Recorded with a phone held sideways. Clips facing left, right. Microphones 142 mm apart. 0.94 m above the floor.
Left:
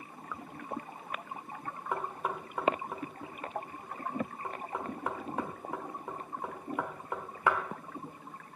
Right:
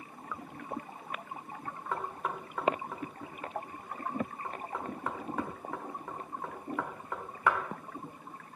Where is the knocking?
15° left (ahead or behind), 1.9 m.